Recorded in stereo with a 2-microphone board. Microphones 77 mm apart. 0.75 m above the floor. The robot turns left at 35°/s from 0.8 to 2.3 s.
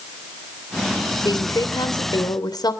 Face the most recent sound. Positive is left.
turn(degrees=70)